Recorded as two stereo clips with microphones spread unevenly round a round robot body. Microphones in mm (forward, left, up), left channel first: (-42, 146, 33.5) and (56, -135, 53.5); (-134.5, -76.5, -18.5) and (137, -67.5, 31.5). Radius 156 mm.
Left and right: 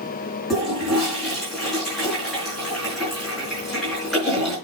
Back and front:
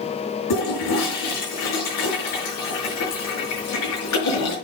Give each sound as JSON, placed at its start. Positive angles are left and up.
{"t": 0.5, "sound": "a toilet flushing", "azimuth_deg": -165, "distance_m": 5.0}